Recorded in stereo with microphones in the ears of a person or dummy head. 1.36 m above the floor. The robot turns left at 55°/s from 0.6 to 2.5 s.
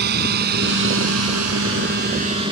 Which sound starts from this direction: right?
A drone, at 0.0 s.